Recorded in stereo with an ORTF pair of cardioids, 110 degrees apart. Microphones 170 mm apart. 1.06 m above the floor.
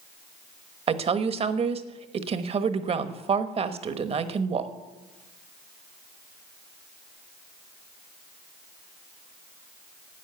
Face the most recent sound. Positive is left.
turn(degrees=-35)